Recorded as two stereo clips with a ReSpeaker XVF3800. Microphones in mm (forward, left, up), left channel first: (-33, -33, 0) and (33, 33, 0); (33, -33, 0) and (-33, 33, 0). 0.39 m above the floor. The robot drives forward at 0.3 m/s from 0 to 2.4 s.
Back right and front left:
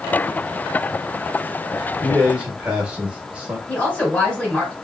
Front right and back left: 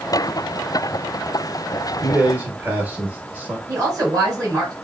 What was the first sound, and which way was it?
A man speaking, 80° left.